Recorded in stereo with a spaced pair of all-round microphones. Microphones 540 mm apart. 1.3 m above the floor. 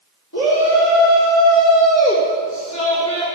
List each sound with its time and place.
0.3 s a shout: 30° left (ahead or behind), 4 m; by 3.3 s 10° left (ahead or behind), 4.5 m